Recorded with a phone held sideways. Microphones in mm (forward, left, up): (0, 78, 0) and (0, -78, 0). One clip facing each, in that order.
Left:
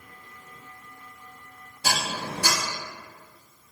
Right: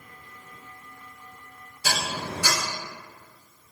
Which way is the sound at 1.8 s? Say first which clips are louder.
Left 1 dB; 85° left.